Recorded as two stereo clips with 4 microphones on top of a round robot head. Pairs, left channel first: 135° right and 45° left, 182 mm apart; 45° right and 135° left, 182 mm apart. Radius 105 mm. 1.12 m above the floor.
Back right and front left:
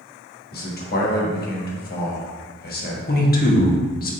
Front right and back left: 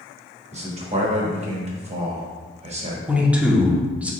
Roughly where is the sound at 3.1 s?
Behind right.